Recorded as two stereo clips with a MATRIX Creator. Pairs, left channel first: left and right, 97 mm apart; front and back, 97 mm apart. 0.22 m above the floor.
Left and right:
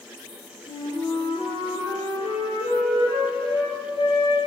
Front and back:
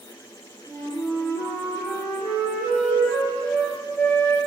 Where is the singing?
I don't hear singing.